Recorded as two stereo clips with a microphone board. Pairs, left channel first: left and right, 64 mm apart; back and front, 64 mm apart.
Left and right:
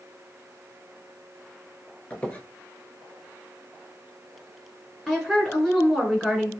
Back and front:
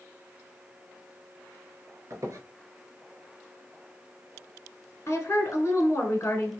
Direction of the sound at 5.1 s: 175° left.